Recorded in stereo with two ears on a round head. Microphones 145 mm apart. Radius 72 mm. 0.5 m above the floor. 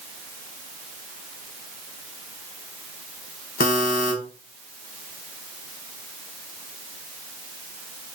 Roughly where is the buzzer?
Left.